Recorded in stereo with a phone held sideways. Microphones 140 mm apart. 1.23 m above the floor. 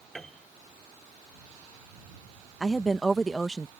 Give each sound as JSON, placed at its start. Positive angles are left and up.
{"t": 0.1, "sound": "a piano", "side_deg": 0}
{"t": 2.6, "sound": "a woman speaking", "side_deg": 0}